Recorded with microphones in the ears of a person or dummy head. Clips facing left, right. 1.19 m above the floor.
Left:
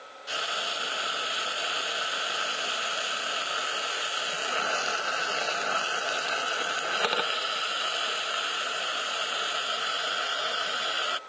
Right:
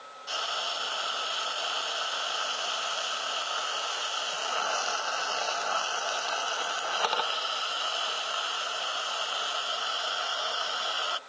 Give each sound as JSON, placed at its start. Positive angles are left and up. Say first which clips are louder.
{"t": 0.3, "sound": "frying", "louder": "left 1 dB", "side_deg": 30}